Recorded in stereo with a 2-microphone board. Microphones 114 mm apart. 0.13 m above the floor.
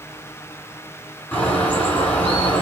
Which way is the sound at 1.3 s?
15° left (ahead or behind).